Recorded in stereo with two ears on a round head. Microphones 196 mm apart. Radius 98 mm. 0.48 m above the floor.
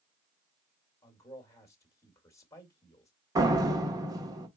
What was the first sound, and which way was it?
A man speaking, 15° left (ahead or behind).